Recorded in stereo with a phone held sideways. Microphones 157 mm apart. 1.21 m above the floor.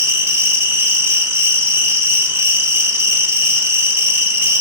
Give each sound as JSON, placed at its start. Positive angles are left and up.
{"t": 0.0, "sound": "an insect", "side_deg": -15, "distance_m": 0.9}